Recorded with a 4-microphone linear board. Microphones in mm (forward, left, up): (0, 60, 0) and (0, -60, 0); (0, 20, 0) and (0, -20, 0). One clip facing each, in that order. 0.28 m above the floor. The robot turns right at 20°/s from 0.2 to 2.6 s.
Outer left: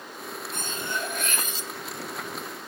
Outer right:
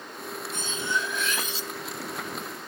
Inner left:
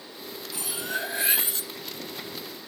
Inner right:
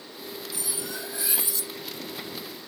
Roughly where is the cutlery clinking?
Left.